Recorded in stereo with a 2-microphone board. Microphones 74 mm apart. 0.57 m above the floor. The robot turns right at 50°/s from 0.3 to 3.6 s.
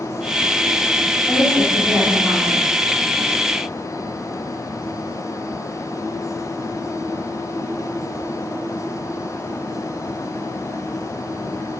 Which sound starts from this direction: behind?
A woman speaking, at 1.3 s.